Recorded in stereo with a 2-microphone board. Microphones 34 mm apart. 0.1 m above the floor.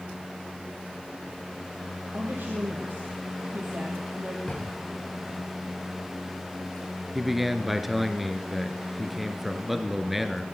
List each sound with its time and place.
2.1 s a woman speaking: 65° right (ahead or behind), 2.5 m
4.5 s a drawer: 25° left (ahead or behind), 5.5 m
7.2 s a man speaking: 5° right (ahead or behind), 1.2 m